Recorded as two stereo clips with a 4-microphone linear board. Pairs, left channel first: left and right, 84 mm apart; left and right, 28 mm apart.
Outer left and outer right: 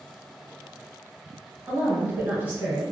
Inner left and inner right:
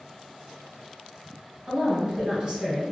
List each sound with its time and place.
1.7 s a woman speaking: 25° right (ahead or behind), 1.5 m